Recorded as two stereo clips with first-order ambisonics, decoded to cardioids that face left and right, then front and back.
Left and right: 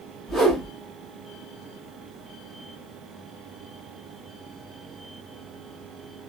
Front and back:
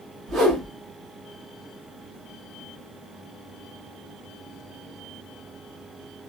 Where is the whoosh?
170° right, 1.2 m.